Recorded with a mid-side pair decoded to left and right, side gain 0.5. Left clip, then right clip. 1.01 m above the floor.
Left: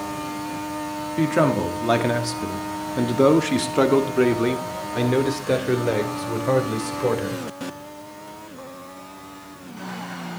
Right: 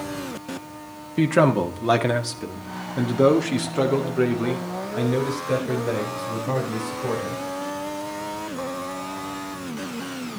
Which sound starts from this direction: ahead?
A man speaking, at 1.2 s.